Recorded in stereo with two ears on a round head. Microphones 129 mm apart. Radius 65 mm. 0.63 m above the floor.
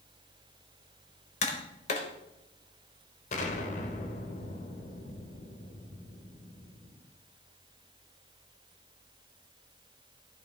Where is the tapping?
50° left (ahead or behind), 1.5 m.